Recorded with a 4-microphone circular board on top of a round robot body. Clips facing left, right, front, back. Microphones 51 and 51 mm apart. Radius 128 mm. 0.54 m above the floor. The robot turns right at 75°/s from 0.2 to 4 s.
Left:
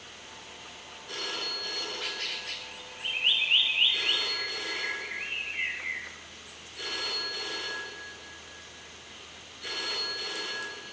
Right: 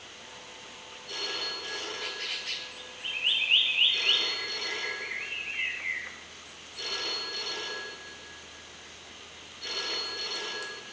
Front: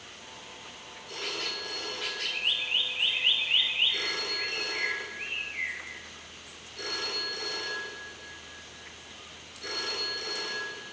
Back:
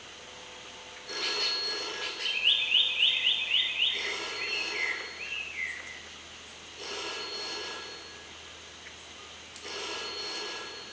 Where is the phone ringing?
155° left, 7.5 m; by 10.8 s 15° left, 7.5 m.